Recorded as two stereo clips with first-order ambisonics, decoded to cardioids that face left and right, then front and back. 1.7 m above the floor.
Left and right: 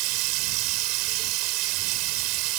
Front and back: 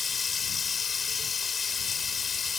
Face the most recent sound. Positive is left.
turn(degrees=-70)